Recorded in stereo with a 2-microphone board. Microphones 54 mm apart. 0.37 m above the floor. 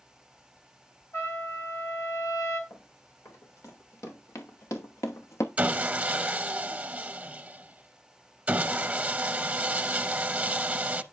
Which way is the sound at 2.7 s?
65° left (ahead or behind).